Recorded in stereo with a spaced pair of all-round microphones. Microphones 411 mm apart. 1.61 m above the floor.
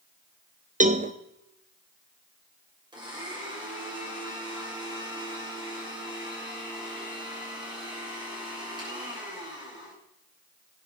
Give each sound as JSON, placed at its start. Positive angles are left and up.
{"t": 0.8, "sound": "a cowbell", "side_deg": -20, "distance_m": 1.1}
{"t": 2.9, "sound": "a blender", "side_deg": -10, "distance_m": 6.5}